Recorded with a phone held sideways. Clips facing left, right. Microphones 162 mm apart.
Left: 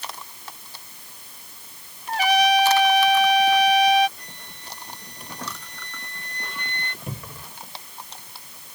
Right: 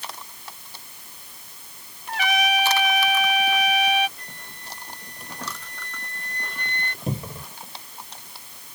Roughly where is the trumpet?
Left.